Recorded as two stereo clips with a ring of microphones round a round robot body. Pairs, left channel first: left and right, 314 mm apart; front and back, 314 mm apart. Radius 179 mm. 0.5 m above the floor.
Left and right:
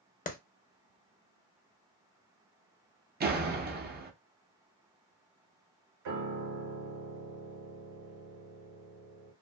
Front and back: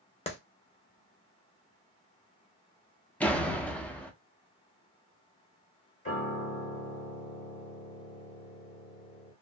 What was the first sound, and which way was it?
A clap, 50° left.